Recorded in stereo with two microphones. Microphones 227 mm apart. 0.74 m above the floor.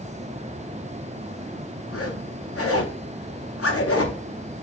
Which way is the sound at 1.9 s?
80° left.